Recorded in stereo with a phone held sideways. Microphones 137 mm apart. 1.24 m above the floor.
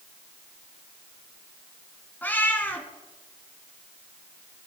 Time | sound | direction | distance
2.2 | a cat meowing | 15° left (ahead or behind) | 1.7 m